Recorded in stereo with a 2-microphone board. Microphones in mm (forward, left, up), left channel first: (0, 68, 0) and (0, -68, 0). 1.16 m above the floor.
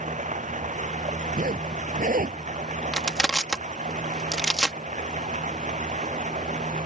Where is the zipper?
80° right.